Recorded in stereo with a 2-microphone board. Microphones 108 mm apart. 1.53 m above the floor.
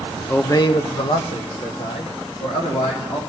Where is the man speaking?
15° left (ahead or behind), 0.6 m; by 3.2 s 85° left, 2.5 m.